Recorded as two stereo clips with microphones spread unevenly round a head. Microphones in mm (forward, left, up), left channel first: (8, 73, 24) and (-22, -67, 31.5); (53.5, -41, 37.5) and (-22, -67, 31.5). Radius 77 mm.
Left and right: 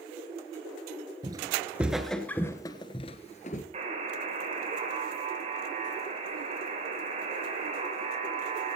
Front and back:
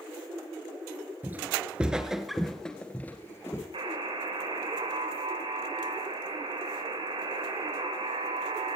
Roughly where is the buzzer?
Behind right.